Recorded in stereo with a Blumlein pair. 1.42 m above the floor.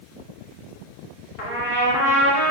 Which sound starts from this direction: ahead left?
A trumpet, at 1.4 s.